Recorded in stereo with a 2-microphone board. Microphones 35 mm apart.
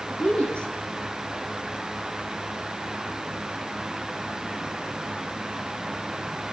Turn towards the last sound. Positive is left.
turn(degrees=35)  # may be behind; listen again after turning